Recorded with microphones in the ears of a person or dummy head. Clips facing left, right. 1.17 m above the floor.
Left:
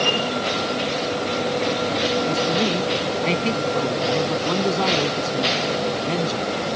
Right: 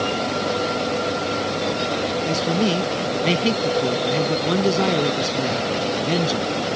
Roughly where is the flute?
I don't hear a flute.